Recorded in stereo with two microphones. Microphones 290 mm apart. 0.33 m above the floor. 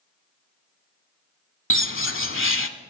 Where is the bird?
45° left (ahead or behind), 0.7 m.